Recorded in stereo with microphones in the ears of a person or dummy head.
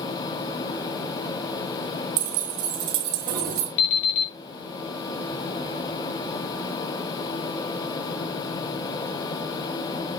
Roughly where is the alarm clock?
Left.